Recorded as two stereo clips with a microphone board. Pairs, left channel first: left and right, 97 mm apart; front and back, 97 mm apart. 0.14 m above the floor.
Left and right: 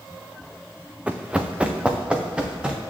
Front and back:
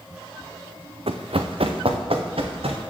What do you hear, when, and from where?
1.1 s running footsteps: 170° right, 0.8 m